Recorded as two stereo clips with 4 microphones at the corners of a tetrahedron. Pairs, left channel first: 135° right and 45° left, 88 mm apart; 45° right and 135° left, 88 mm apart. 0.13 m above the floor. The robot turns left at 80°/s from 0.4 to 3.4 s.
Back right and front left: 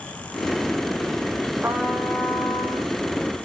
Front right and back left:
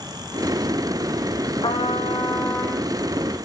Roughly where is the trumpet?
Ahead.